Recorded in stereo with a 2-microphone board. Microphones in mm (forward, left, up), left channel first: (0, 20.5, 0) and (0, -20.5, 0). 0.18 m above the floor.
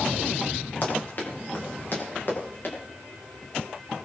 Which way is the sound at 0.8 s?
50° left (ahead or behind).